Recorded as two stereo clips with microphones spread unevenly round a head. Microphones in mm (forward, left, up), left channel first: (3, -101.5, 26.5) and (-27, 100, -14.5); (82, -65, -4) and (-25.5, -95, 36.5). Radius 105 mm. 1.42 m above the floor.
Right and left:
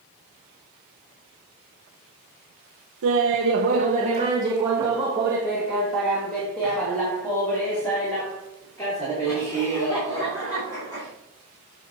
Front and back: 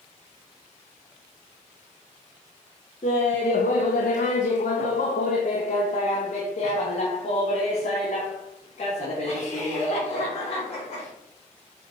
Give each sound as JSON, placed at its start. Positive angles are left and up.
{"t": 3.0, "sound": "laughter", "azimuth_deg": 75, "distance_m": 0.8}